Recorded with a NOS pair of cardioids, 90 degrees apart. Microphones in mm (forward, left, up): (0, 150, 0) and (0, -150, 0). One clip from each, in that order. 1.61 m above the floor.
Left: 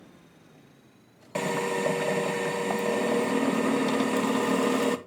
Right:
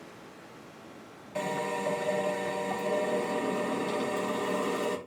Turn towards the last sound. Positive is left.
turn(degrees=55)